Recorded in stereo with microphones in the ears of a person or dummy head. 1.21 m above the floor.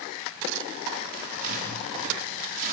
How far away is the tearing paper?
About 3 m.